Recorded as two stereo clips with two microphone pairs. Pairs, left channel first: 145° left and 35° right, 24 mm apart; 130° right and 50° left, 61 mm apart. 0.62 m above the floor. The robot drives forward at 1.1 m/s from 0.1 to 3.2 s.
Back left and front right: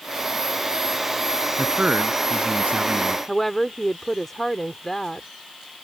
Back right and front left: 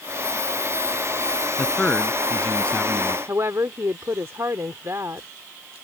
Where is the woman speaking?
70° left.